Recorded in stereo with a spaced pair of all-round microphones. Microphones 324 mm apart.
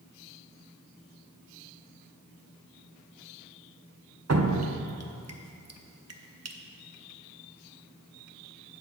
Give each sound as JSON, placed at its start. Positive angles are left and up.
{"t": 4.3, "sound": "dripping", "side_deg": -50, "distance_m": 0.6}